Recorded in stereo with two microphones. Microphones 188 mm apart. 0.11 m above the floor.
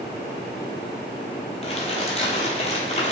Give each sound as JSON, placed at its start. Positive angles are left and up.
{"t": 1.6, "sound": "crumpling", "side_deg": 35, "distance_m": 0.8}